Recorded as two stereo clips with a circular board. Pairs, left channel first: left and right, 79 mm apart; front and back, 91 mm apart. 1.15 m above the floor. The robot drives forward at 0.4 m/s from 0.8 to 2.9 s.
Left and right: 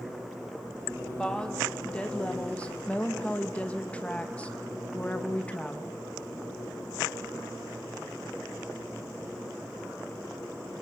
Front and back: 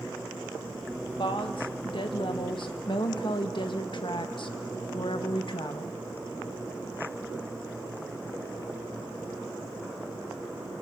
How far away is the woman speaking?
About 2 m.